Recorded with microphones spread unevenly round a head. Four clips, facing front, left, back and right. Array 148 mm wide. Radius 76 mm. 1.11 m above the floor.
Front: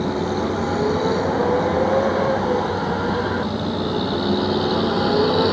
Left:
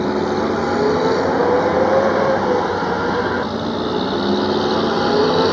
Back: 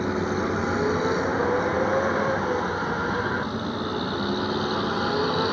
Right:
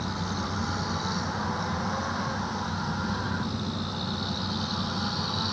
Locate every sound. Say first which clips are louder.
0.0 s a vehicle: left 15 dB, front 3 dB; 85° left; by 5.5 s 70° left